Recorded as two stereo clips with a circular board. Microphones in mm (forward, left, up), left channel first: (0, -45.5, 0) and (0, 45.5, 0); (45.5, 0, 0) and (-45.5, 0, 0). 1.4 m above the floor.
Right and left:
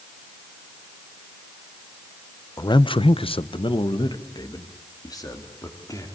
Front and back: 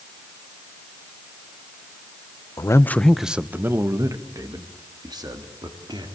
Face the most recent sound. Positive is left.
turn(degrees=-145)